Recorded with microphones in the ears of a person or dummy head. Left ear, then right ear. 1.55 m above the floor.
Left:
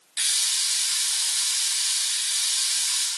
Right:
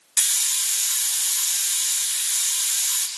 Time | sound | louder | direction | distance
0.2 | a hiss | even | 35° right (ahead or behind) | 0.7 m